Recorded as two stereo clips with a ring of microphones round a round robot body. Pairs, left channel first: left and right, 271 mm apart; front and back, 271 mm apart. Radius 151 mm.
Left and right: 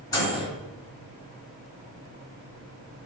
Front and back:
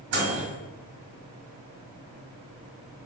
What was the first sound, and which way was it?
A microwave, 165° left.